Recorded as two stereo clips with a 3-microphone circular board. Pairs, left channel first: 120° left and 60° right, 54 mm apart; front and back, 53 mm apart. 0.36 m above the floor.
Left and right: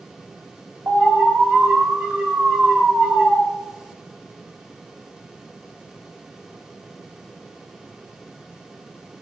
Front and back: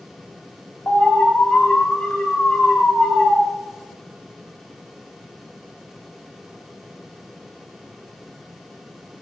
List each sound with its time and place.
0.9 s an alarm: 55° right, 2.0 m